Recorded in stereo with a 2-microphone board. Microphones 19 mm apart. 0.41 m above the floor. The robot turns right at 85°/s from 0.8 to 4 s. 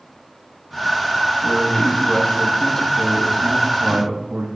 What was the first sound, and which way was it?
A man speaking, 20° left.